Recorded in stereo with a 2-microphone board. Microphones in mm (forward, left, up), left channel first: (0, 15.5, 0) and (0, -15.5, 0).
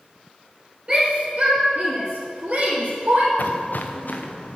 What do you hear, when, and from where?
0.9 s a shout: 35° right (ahead or behind), 2.0 m; by 3.3 s 60° right (ahead or behind), 3 m
3.4 s footsteps: 75° left (ahead or behind), 0.9 m; by 4.6 s 55° left (ahead or behind), 2.5 m